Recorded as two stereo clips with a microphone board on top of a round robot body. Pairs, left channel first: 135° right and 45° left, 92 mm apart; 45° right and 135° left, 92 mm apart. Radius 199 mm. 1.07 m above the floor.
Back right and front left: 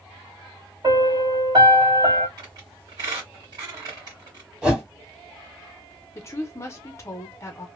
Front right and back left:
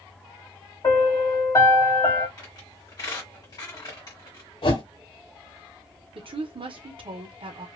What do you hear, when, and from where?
0.8 s a piano: 5° left, 1.7 m
2.4 s a squeak: straight ahead, 1.6 m
4.6 s a whoosh: 35° right, 1.5 m
6.2 s a woman speaking: 165° left, 0.7 m